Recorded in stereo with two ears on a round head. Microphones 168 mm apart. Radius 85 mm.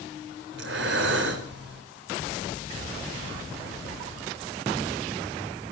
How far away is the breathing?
About 3 m.